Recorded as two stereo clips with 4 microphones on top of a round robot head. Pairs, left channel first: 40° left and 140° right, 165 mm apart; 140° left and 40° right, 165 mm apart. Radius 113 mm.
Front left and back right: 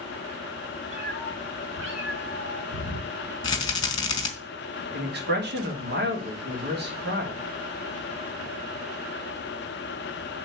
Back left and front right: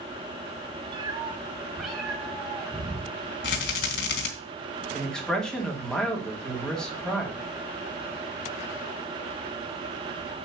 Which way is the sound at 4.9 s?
135° right.